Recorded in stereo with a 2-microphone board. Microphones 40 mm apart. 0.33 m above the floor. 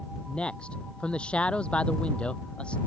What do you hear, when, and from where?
0.3 s a man speaking: 30° left (ahead or behind)